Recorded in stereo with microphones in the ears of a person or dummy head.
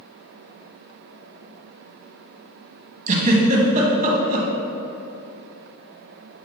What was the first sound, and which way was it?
A giggle, 35° right (ahead or behind).